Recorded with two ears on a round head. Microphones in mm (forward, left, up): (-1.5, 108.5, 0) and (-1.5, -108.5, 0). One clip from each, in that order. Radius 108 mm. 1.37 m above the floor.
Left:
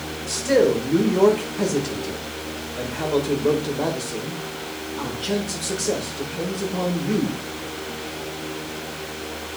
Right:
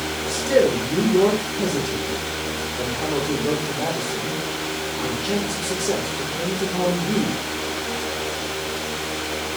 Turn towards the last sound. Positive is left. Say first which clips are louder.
# even
turn(degrees=60)  # may be behind; listen again after turning